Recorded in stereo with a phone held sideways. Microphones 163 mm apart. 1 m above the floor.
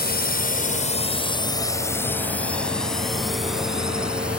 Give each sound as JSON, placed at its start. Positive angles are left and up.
{"t": 0.0, "sound": "a drone", "side_deg": 75}